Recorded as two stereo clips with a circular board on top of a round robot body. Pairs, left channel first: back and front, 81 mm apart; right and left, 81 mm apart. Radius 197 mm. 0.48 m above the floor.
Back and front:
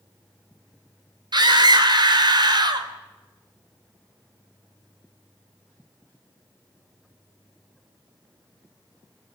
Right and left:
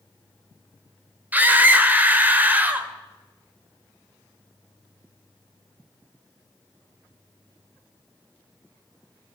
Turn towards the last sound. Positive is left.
turn(degrees=20)